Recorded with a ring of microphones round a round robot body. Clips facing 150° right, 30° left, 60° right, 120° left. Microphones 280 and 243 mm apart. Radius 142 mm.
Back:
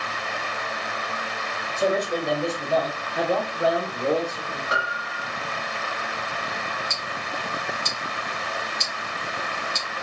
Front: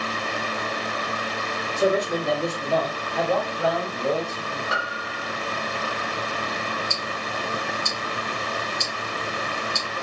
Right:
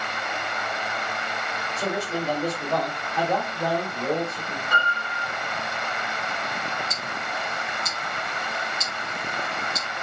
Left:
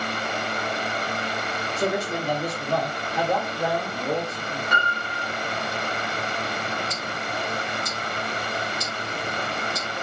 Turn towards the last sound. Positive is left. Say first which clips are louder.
# front 3 dB, left 3 dB
turn(degrees=-105)